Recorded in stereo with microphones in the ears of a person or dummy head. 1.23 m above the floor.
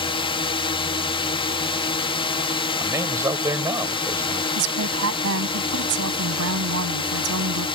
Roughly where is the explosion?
No explosion in this recording.